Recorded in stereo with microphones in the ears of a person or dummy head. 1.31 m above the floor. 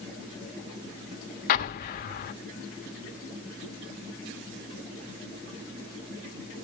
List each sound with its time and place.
1.5 s an explosion: 50° left (ahead or behind), 1.2 m